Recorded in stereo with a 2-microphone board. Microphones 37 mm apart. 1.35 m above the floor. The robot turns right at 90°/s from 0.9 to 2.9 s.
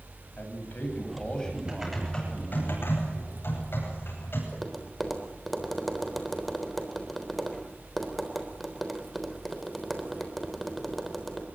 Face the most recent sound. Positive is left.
turn(degrees=5)  # may be behind; listen again after turning